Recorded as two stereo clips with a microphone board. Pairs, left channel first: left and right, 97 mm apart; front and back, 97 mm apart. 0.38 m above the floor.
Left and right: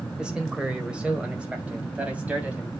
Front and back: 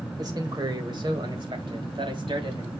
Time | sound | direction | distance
0.2 | a man speaking | 170° right | 1.4 m